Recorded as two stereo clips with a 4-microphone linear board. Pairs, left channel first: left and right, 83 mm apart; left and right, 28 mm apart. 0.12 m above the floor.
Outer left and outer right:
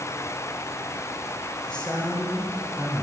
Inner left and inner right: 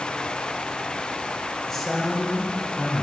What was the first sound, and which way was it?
A man speaking, 15° left (ahead or behind).